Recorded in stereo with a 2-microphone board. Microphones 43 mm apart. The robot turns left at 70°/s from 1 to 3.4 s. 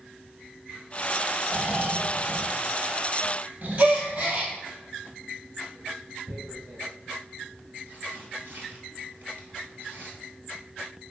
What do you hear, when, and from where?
1.5 s snoring: 75° left, 1.0 m; by 4.6 s 65° right, 1.0 m
3.8 s a gasp: 40° right (ahead or behind), 1.4 m
6.3 s tearing paper: 55° right (ahead or behind), 1.7 m